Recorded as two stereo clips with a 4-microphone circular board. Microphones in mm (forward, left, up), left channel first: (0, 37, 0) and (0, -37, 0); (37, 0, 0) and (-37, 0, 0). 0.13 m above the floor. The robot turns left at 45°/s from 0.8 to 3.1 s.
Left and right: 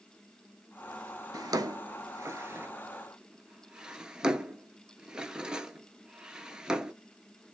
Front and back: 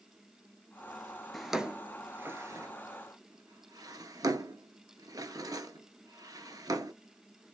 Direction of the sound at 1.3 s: 90° right.